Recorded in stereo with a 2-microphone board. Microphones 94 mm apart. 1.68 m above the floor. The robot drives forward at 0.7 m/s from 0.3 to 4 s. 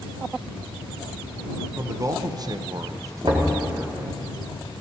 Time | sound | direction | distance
1.8 | a man speaking | 30° right (ahead or behind) | 0.8 m
3.2 | knocking | 55° right (ahead or behind) | 2 m